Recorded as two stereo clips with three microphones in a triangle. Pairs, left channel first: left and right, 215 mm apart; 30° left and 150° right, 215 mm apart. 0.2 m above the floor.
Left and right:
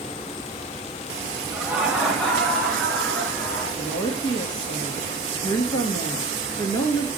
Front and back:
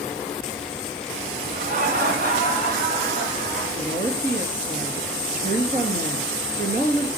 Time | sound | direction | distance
1.5 | laughter | 175° right | 2 m
3.8 | a woman speaking | 160° left | 3 m